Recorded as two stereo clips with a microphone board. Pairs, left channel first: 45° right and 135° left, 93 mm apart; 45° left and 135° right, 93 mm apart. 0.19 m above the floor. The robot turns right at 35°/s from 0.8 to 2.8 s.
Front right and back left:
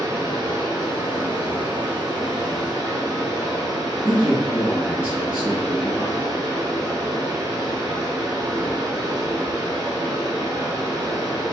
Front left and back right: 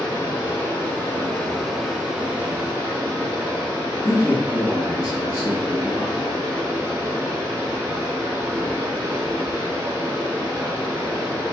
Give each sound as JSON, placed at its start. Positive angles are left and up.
{"t": 0.0, "sound": "running water", "azimuth_deg": 95, "distance_m": 1.1}
{"t": 4.0, "sound": "a man speaking", "azimuth_deg": 65, "distance_m": 2.0}